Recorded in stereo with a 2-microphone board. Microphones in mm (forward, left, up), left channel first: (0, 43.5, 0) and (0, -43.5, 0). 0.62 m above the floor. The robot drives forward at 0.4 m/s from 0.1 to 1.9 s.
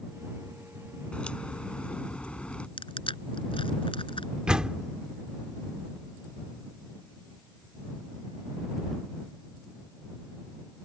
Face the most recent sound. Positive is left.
turn(degrees=-10)  # may be behind; listen again after turning